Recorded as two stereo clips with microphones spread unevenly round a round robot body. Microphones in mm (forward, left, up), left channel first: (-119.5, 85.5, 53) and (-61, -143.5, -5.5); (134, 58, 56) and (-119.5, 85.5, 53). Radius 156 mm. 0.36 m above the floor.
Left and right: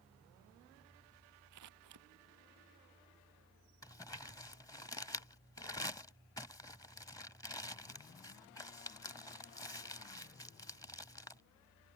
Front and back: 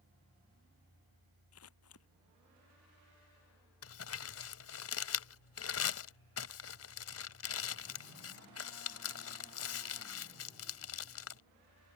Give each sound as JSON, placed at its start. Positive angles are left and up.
{"t": 1.5, "sound": "scissors", "azimuth_deg": -55}
{"t": 3.8, "sound": "crumpling", "azimuth_deg": 20}